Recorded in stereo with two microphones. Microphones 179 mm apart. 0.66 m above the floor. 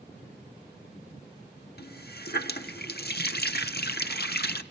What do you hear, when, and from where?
1.8 s a running tap: 65° left (ahead or behind), 1.1 m